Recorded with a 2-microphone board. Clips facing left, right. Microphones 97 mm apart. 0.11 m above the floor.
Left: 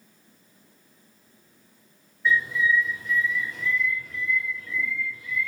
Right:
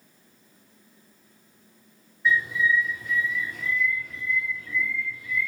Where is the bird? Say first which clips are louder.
Even; 5° right (ahead or behind), 2.0 m.